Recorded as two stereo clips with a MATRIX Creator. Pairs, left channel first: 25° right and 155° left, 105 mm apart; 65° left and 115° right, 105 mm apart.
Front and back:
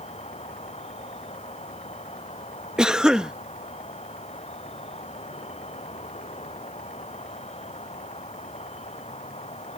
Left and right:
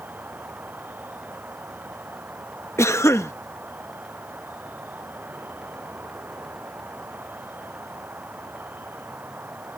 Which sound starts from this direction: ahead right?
An insect, at 0.0 s.